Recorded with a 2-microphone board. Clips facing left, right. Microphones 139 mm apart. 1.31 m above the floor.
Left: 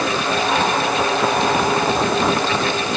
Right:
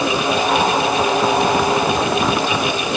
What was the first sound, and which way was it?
Only background noise.